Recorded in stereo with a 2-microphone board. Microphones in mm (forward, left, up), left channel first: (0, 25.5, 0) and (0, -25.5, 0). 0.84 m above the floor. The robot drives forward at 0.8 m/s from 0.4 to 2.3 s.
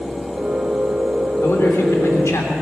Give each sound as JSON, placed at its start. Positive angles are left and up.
{"t": 1.4, "sound": "a man speaking", "side_deg": 55, "distance_m": 2.5}